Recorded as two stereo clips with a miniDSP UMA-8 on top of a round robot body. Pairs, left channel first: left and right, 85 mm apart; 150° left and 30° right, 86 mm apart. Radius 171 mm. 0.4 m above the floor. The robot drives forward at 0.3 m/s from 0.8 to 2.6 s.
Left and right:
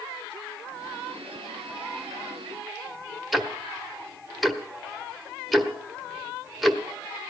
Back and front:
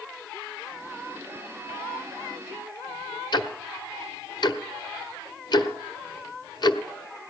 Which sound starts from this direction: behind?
Ticking, at 3.3 s.